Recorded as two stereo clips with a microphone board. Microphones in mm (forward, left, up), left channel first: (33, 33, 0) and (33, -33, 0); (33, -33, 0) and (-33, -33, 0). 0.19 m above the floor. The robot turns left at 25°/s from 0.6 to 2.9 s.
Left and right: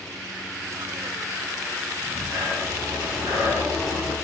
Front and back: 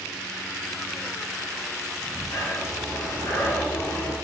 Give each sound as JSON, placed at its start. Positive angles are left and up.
{"t": 2.0, "sound": "breathing", "azimuth_deg": -35, "distance_m": 1.5}